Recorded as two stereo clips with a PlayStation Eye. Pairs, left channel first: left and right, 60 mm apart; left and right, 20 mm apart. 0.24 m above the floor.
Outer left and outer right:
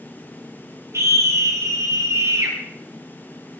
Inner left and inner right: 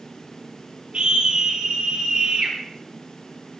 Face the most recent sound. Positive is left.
turn(degrees=-55)  # may be behind; listen again after turning